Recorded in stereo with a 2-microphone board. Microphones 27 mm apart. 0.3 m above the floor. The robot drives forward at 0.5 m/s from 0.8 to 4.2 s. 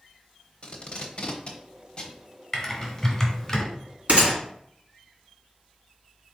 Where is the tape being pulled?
40° left (ahead or behind), 0.8 m; by 2.2 s 35° left (ahead or behind), 1.0 m.